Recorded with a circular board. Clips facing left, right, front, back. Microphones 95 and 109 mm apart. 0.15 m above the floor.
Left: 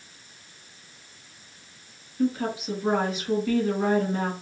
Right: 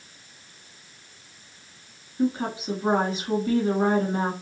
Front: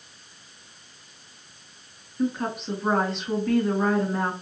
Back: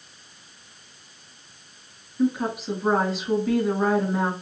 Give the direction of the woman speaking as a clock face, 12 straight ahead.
3 o'clock.